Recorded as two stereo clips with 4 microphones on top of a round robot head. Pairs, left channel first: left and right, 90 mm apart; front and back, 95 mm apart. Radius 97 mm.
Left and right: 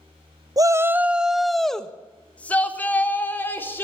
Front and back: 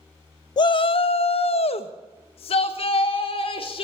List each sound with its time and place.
0.6 s a shout: 45° right, 0.7 m; by 3.9 s 25° left, 3 m